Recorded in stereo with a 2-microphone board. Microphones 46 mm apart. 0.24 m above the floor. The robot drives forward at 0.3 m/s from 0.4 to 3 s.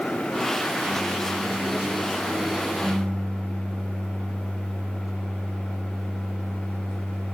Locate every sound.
0.9 s a microwave: 5° right (ahead or behind), 2.5 m; by 7.3 s 10° right (ahead or behind), 2.0 m